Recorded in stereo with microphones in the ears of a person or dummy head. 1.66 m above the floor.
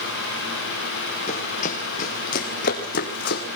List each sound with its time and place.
1.3 s running footsteps: 45° left (ahead or behind), 4 m; by 3.5 s 60° left (ahead or behind), 4 m